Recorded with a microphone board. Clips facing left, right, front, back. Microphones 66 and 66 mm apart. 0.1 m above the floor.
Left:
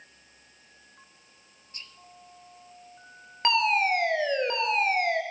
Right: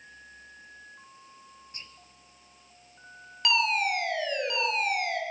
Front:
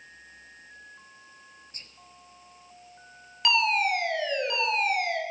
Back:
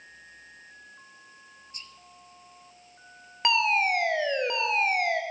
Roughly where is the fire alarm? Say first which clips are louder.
Left 3 dB, even; behind left.